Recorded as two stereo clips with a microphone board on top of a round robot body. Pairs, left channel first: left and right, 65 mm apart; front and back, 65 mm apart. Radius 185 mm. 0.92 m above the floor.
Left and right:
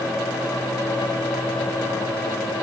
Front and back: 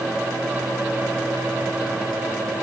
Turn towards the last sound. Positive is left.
No sound to turn to.